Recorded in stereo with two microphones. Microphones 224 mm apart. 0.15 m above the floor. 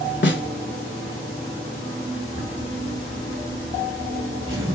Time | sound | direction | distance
0.2 | a snare drum | 55° left (ahead or behind) | 0.7 m
2.3 | a zipper | 65° right (ahead or behind) | 2 m